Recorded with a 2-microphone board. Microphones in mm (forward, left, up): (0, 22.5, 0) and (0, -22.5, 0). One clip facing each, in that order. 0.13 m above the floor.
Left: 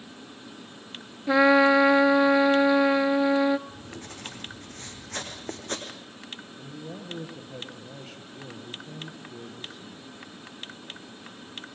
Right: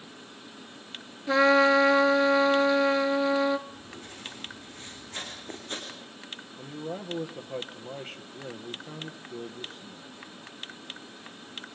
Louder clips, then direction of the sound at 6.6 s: Right 6 dB; 35° right (ahead or behind).